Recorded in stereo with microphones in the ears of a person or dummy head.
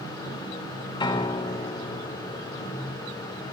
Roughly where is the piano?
Left.